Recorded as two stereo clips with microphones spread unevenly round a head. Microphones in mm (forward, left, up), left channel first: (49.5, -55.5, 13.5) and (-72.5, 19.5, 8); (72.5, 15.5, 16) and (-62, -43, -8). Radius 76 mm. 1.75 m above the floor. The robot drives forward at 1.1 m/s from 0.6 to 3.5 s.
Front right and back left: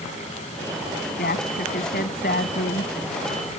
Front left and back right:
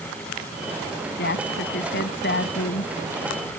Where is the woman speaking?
10° left.